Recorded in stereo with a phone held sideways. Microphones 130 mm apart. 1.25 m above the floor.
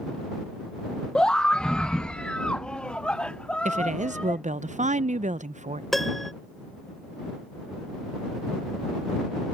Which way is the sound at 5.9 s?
Centre (ahead or behind).